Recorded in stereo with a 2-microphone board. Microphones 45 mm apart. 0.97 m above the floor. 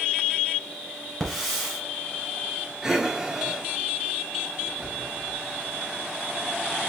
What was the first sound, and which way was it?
A hiss, 10° left (ahead or behind).